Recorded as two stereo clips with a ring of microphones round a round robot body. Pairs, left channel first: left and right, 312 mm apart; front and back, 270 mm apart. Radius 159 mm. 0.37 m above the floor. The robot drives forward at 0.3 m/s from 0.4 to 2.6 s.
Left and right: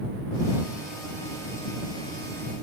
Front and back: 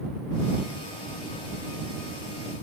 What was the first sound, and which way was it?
Only background noise.